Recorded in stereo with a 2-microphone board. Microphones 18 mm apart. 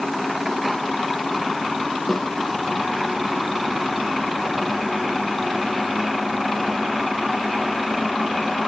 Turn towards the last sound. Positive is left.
turn(degrees=20)  # may be behind; listen again after turning